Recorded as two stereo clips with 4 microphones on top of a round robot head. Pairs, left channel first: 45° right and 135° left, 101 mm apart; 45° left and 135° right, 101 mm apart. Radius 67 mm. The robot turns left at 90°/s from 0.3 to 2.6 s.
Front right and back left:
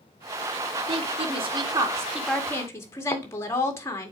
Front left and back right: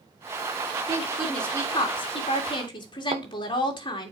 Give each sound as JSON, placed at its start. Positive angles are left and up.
{"t": 0.9, "sound": "a woman speaking", "azimuth_deg": 170, "distance_m": 2.0}
{"t": 3.1, "sound": "a thud", "azimuth_deg": -105, "distance_m": 0.6}